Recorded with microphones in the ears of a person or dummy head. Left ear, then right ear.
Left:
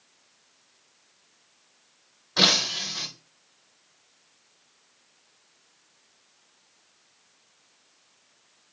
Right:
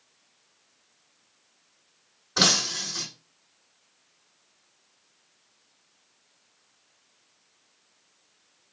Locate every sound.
2.4 s breaking glass: 25° right (ahead or behind), 5 m